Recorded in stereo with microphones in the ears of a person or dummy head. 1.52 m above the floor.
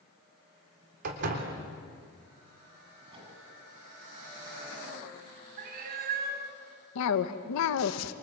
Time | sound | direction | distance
1.0 | a door slam | 55° right (ahead or behind) | 3.5 m
3.1 | a microwave | 30° right (ahead or behind) | 8.5 m
5.6 | a cat meowing | 50° right (ahead or behind) | 3.5 m
7.0 | a cough | 80° left | 1.5 m